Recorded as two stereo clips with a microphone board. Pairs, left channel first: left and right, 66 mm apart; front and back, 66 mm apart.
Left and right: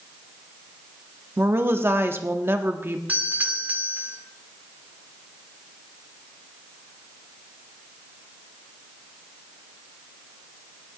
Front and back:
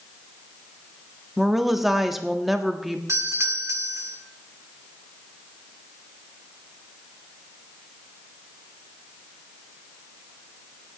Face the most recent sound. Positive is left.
turn(degrees=-150)